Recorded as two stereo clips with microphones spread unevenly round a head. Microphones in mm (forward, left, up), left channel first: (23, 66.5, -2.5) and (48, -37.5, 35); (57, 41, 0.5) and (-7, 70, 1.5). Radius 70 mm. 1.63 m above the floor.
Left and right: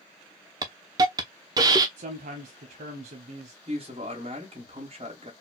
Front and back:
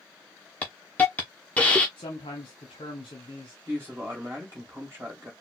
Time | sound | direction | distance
0.6 | a hiss | 95° right | 0.5 m
2.0 | a man speaking | 65° right | 0.8 m
3.7 | a man speaking | 130° right | 1.4 m